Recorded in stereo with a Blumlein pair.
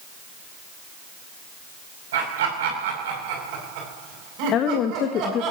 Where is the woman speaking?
30° left, 1.5 m.